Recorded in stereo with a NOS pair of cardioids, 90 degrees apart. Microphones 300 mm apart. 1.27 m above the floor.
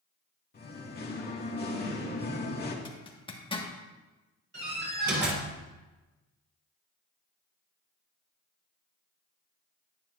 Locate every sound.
0.5 s singing: 30° left, 2 m
2.9 s a zipper: 15° left, 1.8 m
4.5 s a door slam: 35° right, 4.5 m